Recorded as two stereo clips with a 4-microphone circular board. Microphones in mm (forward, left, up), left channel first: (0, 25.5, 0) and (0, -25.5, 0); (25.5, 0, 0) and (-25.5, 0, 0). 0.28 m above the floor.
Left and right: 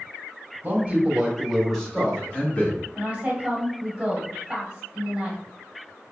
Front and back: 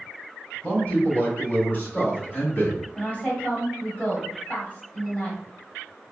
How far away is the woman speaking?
About 1.1 m.